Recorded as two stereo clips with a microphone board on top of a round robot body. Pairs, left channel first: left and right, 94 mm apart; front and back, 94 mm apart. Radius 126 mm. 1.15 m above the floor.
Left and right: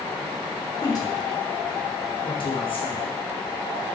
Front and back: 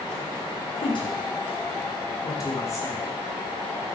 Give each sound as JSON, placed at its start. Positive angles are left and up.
{"t": 0.8, "sound": "a woman speaking", "azimuth_deg": 35, "distance_m": 4.0}